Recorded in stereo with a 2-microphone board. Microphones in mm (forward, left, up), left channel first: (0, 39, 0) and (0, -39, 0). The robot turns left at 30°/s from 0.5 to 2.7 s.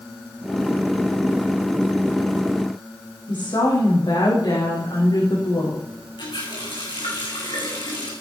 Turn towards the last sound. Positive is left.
turn(degrees=75)  # may be behind; listen again after turning